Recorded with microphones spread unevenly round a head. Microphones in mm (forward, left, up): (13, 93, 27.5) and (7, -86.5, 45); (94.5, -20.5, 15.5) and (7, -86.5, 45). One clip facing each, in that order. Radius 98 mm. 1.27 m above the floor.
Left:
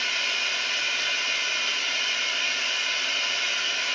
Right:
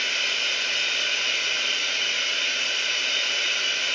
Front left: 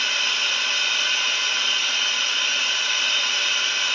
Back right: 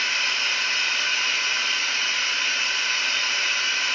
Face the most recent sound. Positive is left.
turn(degrees=-50)